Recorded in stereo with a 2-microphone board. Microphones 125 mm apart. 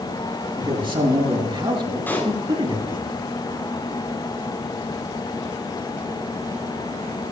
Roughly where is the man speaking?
Right.